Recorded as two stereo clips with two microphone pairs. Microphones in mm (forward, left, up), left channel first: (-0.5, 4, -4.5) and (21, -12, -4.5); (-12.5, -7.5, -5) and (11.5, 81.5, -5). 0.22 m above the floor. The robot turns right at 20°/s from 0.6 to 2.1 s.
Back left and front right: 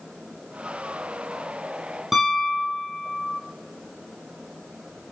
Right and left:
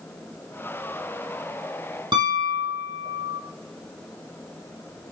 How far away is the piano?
About 4 m.